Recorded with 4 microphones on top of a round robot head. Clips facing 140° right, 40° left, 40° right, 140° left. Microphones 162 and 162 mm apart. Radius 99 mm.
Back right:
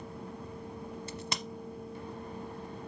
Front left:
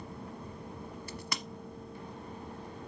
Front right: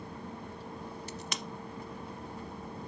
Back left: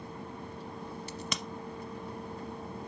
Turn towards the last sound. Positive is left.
turn(degrees=155)